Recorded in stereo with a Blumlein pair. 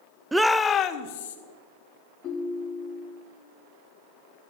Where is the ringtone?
30° left, 1.2 m.